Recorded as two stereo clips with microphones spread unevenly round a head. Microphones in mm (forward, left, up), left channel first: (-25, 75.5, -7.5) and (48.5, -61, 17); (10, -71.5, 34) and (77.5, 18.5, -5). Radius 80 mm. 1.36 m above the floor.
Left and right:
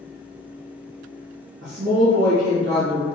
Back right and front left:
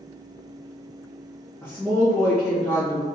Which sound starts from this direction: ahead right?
A woman speaking, at 1.6 s.